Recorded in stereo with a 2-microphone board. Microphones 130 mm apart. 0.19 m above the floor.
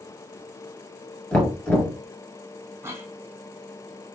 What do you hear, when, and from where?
1.3 s knocking: 10° left (ahead or behind), 1.6 m
2.8 s a cough: 20° right (ahead or behind), 1.3 m